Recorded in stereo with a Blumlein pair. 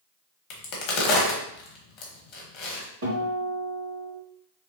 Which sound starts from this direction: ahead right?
A guitar, at 3.0 s.